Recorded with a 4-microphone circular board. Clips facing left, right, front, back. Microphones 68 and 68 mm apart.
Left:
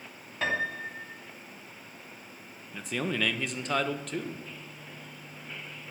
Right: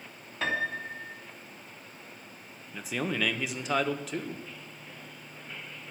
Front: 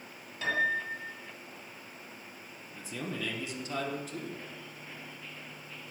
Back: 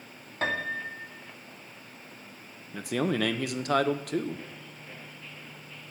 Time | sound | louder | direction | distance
0.4 | a piano | even, front 1 dB | 175° left | 2 m
2.7 | a man speaking | even, back 11 dB | 175° right | 0.9 m